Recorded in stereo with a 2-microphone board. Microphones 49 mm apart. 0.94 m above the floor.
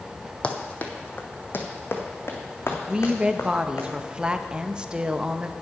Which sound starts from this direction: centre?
A woman speaking, at 2.9 s.